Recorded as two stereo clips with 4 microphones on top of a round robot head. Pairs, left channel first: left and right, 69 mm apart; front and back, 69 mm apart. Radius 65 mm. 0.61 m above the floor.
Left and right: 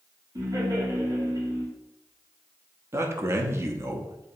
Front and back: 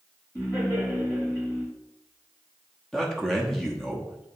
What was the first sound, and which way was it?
Laughter, 60° right.